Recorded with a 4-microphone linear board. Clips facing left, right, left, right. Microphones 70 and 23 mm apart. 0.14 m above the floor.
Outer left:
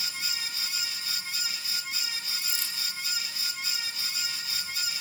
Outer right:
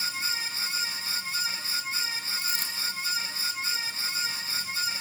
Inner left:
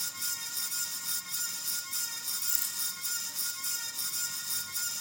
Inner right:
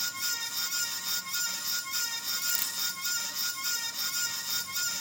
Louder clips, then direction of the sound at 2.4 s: Outer right 4 dB, inner right 3 dB; 50° right (ahead or behind).